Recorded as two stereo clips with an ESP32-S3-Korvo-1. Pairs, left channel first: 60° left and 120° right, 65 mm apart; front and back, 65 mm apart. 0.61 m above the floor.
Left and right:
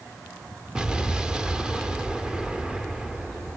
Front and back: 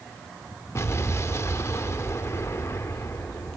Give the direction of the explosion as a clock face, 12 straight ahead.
1 o'clock.